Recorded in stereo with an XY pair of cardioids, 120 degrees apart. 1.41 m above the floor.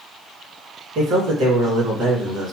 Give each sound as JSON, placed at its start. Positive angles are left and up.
{"t": 0.9, "sound": "a man speaking", "azimuth_deg": -65, "distance_m": 1.9}